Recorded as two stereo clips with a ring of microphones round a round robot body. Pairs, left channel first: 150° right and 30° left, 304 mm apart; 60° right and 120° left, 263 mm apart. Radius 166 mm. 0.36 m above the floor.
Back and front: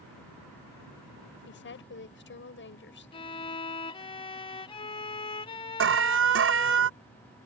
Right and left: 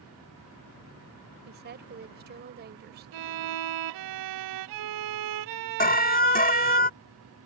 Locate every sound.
1.4 s a woman speaking: 165° left
3.1 s a violin: 135° left
5.8 s an alarm: 10° right